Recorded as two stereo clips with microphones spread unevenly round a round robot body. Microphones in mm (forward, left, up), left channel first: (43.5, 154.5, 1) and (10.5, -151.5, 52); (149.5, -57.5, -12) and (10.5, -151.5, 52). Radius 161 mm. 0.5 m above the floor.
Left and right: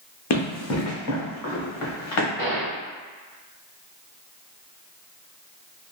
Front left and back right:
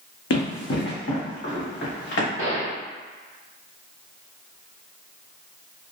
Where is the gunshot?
35° left, 1.9 m.